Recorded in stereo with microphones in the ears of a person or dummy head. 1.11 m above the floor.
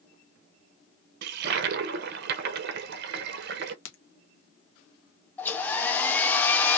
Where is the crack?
85° left, 1.1 m.